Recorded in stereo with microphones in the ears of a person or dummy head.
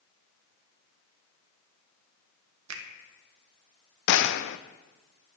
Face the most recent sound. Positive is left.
turn(degrees=75)  # may be behind; listen again after turning